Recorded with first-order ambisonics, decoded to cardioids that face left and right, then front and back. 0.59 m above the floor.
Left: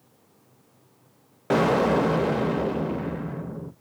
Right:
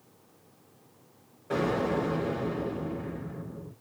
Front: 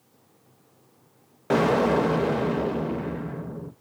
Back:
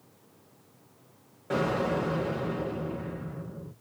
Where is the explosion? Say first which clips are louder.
Left 8 dB, front 7 dB; 50° left, 0.5 m.